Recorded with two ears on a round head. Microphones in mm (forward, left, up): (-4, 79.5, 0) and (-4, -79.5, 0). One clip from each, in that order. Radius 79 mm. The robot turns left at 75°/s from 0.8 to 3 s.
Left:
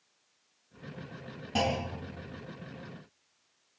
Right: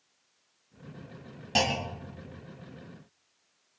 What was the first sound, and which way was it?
A clunk, 85° right.